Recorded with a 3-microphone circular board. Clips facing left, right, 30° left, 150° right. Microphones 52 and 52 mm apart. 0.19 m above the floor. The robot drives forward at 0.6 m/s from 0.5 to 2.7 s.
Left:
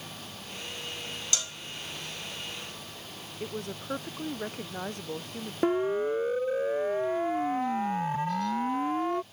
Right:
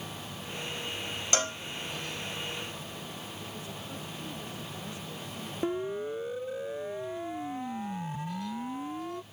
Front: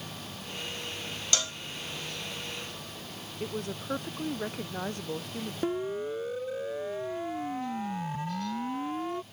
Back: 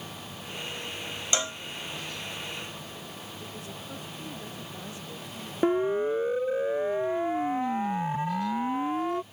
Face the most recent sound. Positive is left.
turn(degrees=140)